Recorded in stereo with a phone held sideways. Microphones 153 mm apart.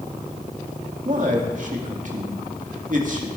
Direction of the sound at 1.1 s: 55° right (ahead or behind).